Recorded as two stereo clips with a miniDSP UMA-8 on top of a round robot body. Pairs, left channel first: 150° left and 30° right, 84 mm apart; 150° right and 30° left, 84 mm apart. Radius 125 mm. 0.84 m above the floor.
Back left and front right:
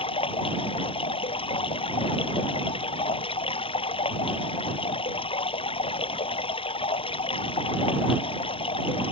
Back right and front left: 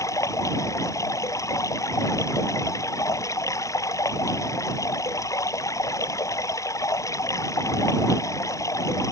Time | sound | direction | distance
0.0 | running water | 155° left | ?